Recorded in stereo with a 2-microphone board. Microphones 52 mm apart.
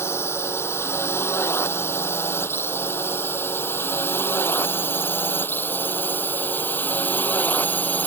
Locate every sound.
0.0 s a drone: 65° left (ahead or behind); by 8.1 s 40° left (ahead or behind)